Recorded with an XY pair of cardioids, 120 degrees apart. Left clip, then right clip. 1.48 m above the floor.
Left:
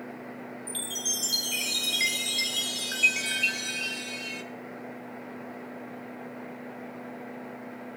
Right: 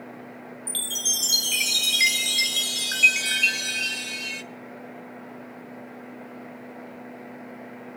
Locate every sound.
0.7 s a chime: 50° right, 1.0 m